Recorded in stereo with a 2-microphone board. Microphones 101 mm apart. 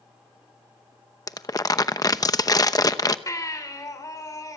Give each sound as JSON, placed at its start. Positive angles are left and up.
{"t": 1.3, "sound": "crumpling", "side_deg": 40, "distance_m": 0.8}
{"t": 3.3, "sound": "a baby crying", "side_deg": 35, "distance_m": 3.5}